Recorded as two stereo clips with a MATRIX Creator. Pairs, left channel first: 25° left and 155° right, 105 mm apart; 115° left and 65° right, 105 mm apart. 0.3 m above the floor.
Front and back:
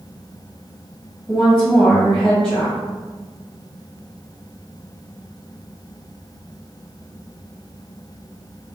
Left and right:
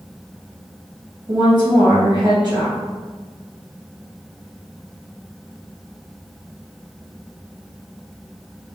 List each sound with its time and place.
1.3 s a woman speaking: 60° right, 2.0 m